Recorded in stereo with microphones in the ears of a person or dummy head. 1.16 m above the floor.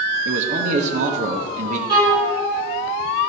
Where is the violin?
20° right (ahead or behind), 3 m.